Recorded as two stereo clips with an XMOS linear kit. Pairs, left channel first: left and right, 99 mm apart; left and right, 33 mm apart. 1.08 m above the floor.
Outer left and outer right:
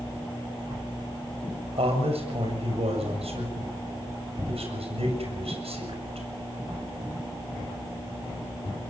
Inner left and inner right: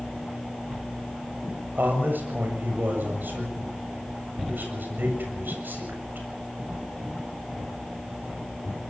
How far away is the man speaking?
About 7 m.